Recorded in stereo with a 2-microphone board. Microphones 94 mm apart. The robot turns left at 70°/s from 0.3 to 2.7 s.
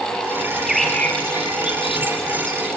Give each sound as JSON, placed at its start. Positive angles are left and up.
{"t": 0.5, "sound": "a bird", "side_deg": -20, "distance_m": 3.5}